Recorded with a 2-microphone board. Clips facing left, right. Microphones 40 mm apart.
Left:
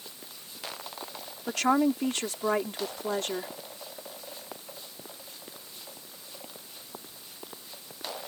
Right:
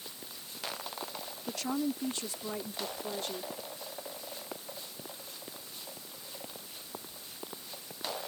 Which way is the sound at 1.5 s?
85° left.